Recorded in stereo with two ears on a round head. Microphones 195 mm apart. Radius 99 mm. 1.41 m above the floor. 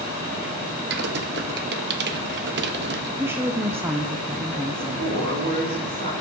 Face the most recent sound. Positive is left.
turn(degrees=-50)  # may be behind; listen again after turning